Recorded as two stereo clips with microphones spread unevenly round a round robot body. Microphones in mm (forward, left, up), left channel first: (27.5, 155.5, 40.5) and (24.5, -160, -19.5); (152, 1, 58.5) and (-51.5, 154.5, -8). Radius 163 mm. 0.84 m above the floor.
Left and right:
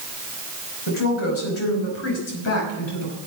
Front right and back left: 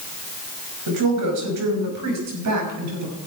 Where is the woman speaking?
145° left, 5.5 m; by 3.2 s 135° left, 6.5 m.